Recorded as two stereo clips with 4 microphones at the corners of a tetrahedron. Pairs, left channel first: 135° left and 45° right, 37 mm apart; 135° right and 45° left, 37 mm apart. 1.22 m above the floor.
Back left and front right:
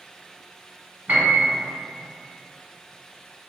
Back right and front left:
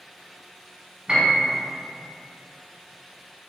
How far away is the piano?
About 1.0 m.